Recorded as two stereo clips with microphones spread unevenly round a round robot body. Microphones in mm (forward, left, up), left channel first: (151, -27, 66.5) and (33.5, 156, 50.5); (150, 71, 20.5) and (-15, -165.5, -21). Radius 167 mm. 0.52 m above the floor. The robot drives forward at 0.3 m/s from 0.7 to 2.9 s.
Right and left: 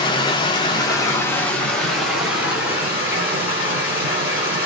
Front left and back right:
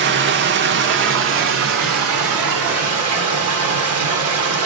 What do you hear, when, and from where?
0.0 s running water: 125° right, 0.7 m; by 4.7 s 155° right, 1.1 m